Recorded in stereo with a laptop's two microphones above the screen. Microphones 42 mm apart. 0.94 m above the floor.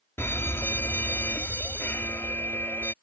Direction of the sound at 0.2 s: 65° left (ahead or behind).